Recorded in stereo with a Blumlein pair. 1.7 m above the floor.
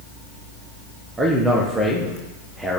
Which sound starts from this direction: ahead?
A man speaking, at 1.2 s.